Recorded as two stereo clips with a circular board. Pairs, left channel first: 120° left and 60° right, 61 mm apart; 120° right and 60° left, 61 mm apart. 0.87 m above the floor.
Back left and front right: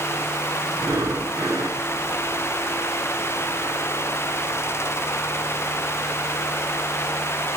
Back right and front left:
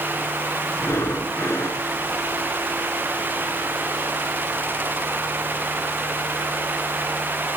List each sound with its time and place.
0.7 s breathing: 75° right, 3 m